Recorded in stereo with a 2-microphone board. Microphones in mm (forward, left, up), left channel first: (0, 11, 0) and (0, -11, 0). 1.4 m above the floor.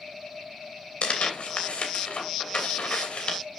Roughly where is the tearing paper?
Left.